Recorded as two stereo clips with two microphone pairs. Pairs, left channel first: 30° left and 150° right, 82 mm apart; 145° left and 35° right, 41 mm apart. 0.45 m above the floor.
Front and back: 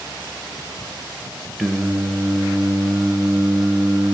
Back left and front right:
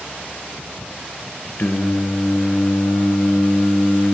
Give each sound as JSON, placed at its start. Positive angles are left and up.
{"t": 1.6, "sound": "singing", "azimuth_deg": 125, "distance_m": 0.6}